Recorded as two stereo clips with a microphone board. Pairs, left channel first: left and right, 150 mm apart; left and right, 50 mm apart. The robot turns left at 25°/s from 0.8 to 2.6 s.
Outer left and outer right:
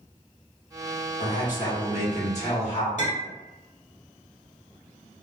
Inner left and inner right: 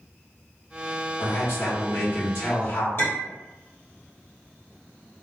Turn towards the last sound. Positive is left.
turn(degrees=55)  # may be behind; listen again after turning